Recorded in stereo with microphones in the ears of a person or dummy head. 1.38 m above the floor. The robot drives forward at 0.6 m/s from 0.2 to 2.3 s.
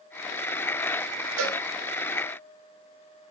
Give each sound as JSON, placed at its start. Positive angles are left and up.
{"t": 1.4, "sound": "a cowbell", "side_deg": -70, "distance_m": 1.2}